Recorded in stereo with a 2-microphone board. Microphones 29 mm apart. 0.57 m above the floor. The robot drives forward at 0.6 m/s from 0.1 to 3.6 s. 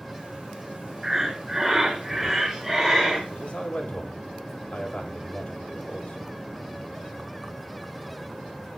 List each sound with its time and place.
1.0 s breathing: 15° right (ahead or behind), 1.0 m; by 3.2 s 5° right (ahead or behind), 2 m
3.3 s a man speaking: 55° left (ahead or behind), 1.5 m